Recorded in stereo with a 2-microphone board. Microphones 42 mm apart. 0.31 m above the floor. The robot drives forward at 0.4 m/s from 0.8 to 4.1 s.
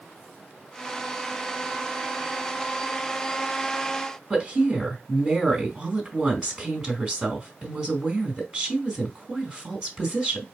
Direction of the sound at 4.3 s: 15° right (ahead or behind).